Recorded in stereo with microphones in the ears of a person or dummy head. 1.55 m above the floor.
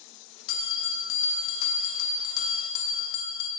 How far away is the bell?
About 0.8 m.